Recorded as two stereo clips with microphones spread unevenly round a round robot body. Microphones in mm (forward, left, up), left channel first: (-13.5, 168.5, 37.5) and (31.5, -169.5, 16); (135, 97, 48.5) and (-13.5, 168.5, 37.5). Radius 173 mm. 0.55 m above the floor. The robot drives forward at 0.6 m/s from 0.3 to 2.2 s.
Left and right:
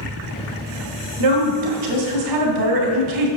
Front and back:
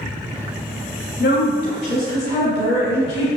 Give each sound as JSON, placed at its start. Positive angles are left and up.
{"t": 1.2, "sound": "a woman speaking", "azimuth_deg": -75, "distance_m": 2.5}